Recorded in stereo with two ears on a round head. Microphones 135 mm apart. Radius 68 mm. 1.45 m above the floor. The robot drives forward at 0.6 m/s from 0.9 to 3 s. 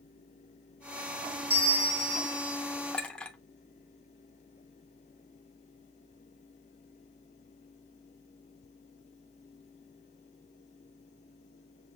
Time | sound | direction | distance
1.5 | a bell | 15° right (ahead or behind) | 1.1 m
2.9 | a clink | 10° left (ahead or behind) | 0.8 m